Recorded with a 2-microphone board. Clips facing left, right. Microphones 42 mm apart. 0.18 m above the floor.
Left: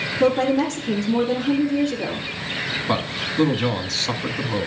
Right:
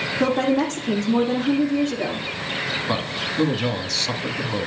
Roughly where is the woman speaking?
Right.